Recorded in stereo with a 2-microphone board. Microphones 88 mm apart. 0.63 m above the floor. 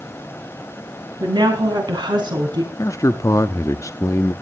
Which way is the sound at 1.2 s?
60° right (ahead or behind).